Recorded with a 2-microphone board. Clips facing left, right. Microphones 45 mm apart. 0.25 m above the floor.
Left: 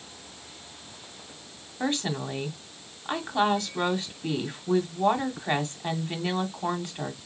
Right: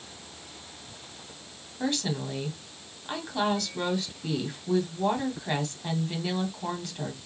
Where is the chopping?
No chopping in this recording.